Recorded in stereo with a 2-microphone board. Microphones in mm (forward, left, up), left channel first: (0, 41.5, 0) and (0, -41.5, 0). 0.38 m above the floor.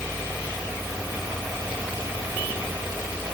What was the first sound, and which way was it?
Only background noise.